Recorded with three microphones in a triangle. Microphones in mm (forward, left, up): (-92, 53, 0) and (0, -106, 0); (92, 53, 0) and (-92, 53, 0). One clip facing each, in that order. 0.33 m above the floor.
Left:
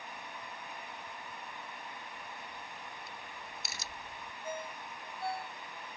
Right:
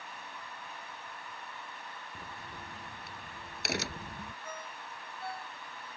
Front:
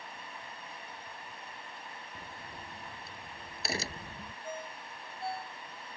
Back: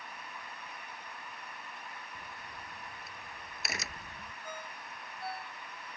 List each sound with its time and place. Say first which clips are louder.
2.1 s a crack: right 1 dB, front 2 dB; 55° right
4.4 s a ringtone: left 4 dB, front 4 dB; 65° left